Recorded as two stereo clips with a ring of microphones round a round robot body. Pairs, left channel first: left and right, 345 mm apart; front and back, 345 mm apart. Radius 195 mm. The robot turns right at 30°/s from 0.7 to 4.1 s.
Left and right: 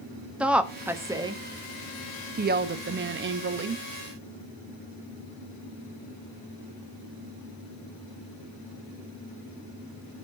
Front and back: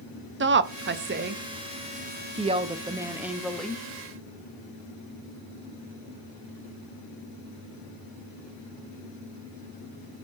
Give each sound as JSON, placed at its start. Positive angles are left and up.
{"t": 0.4, "sound": "a woman speaking", "azimuth_deg": -175, "distance_m": 0.8}